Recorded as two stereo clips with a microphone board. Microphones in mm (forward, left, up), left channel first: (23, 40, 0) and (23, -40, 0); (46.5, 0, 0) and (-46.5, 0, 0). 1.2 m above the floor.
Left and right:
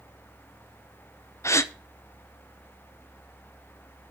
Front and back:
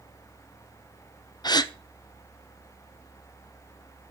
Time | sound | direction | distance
1.4 | a gasp | 40° left | 0.5 m